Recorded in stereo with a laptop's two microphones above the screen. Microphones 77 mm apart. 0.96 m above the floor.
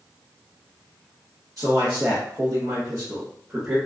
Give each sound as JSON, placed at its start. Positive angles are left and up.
{"t": 1.6, "sound": "a man speaking", "side_deg": -50, "distance_m": 0.9}